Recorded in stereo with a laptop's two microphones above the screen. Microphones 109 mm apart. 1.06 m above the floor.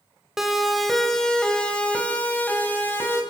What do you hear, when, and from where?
0.4 s a siren: 5° right (ahead or behind), 4 m; by 3.2 s 20° left (ahead or behind), 6 m